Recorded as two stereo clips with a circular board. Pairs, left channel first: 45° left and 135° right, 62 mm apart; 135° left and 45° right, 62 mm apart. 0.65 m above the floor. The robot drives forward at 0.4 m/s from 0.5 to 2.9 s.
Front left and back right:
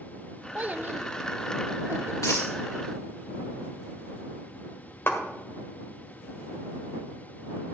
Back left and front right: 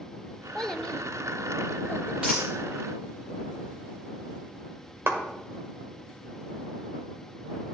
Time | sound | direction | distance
0.6 | a child speaking | 155° right | 0.5 m
2.2 | a dropped coin | 30° left | 4 m
5.1 | a clap | 5° right | 1.8 m